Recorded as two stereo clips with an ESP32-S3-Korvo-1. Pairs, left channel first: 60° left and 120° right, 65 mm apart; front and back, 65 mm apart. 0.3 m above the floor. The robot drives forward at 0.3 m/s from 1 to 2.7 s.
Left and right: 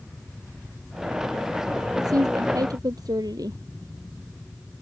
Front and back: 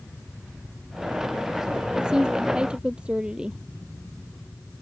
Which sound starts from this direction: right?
A woman speaking, at 2.0 s.